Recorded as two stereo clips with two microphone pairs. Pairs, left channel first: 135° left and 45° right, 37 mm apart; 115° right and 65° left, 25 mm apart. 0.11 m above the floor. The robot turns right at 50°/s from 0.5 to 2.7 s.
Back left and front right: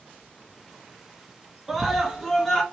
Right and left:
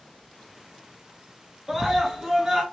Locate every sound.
1.7 s a scream: 30° left, 1.1 m; by 2.6 s 80° left, 1.1 m